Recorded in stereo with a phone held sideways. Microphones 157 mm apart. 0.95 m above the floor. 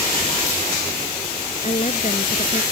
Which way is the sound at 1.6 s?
45° left (ahead or behind).